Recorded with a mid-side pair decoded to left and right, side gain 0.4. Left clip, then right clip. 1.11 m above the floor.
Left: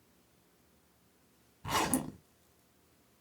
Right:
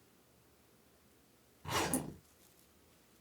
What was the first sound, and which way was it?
A zipper, 55° left.